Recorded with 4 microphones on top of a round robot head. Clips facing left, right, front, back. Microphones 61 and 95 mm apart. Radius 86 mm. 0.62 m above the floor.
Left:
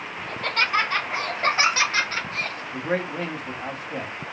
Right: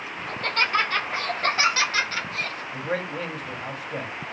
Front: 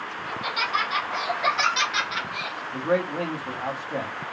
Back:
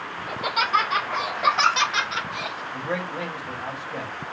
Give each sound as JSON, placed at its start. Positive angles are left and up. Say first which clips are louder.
{"t": 0.3, "sound": "laughter", "louder": "even, back 4 dB", "azimuth_deg": 170, "distance_m": 2.0}
{"t": 2.7, "sound": "a man speaking", "louder": "left 3 dB, front 6 dB", "azimuth_deg": 35, "distance_m": 1.8}